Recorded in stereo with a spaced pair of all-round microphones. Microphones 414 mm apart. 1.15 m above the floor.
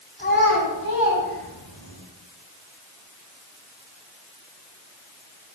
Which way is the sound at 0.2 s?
25° left (ahead or behind).